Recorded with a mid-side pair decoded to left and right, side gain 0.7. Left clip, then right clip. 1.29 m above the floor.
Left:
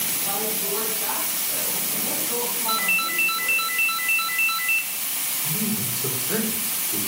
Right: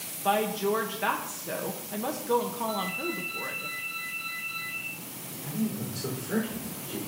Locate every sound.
0.2 s a woman speaking: 50° right, 1.4 m
2.7 s a ringtone: 60° left, 0.6 m
5.4 s a man speaking: 15° left, 4 m